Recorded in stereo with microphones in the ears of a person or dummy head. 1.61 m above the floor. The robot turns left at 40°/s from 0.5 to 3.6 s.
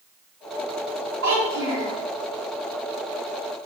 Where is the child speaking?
60° right (ahead or behind), 0.7 m; by 1.9 s 55° right (ahead or behind), 0.7 m.